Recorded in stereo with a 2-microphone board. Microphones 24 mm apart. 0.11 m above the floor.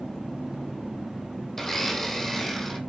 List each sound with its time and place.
1.6 s a blender: 10° left (ahead or behind), 1.8 m